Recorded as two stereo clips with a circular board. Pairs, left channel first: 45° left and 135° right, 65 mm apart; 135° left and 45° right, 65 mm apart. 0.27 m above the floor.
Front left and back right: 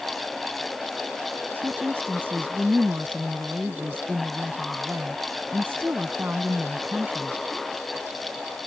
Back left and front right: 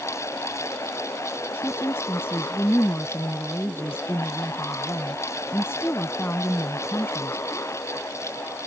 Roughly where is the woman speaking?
Behind.